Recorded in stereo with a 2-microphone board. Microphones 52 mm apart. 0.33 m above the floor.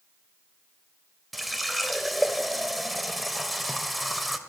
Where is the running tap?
5° right (ahead or behind), 0.6 m.